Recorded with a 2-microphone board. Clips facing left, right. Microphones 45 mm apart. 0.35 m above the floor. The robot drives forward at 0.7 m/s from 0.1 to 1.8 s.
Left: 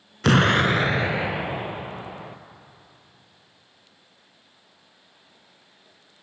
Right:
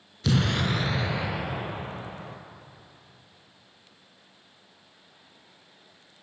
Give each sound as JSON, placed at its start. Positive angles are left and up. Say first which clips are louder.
{"t": 0.2, "sound": "an explosion", "louder": "left 8 dB", "side_deg": 65, "distance_m": 0.6}